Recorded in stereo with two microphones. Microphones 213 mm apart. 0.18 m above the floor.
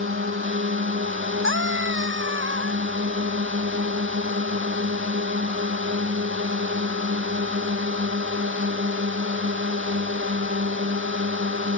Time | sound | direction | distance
0.0 | a drone | 70° right (ahead or behind) | ?
1.4 | a scream | 70° right (ahead or behind) | ?